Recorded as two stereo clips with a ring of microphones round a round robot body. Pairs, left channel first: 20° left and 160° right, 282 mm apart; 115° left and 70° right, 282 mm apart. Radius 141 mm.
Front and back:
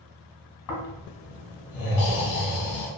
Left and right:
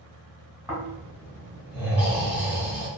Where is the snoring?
20° left, 1.4 m.